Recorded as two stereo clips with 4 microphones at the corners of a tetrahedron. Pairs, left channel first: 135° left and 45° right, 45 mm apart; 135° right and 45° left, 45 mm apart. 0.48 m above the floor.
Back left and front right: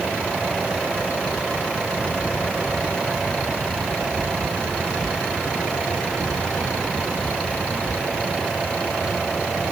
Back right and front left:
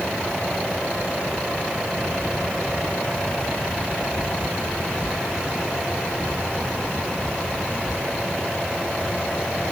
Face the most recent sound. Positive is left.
No sound to turn to.